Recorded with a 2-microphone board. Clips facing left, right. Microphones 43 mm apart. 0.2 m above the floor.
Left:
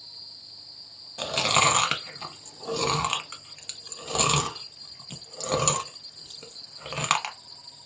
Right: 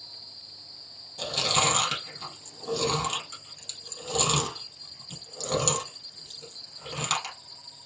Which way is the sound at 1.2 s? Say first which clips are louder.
Left 4 dB; 45° left (ahead or behind).